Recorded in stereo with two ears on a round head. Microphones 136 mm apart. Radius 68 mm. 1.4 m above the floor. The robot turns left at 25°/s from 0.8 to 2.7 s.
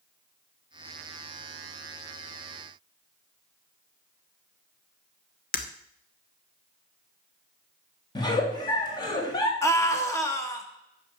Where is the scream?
20° left (ahead or behind), 1.8 m.